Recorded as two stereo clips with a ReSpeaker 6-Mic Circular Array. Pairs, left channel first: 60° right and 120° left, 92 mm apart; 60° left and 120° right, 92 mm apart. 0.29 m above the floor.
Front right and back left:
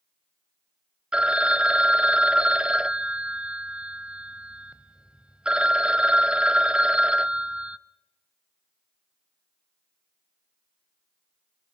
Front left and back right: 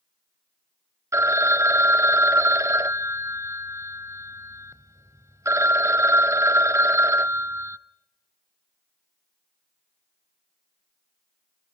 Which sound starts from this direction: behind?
A phone ringing, at 1.1 s.